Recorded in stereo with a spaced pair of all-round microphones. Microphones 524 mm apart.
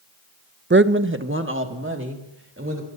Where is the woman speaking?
25° right (ahead or behind), 0.5 m.